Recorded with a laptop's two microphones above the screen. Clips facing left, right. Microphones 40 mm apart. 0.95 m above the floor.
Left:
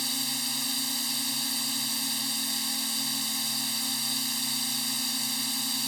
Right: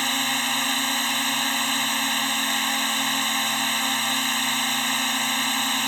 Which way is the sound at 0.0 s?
55° right (ahead or behind).